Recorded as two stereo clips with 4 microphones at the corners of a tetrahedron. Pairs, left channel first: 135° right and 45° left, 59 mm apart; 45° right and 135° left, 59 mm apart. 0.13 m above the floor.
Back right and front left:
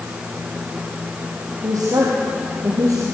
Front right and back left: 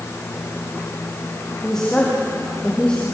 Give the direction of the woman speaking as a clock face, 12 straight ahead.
11 o'clock.